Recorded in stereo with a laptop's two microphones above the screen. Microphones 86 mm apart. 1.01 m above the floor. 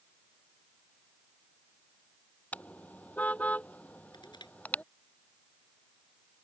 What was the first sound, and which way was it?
A car horn, 20° left (ahead or behind).